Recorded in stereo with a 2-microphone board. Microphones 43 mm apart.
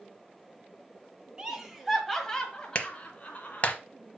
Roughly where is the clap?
Left.